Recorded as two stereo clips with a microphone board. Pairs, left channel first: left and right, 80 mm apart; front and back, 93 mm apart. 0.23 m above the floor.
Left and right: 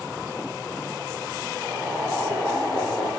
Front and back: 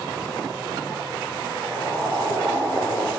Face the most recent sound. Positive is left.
turn(degrees=-60)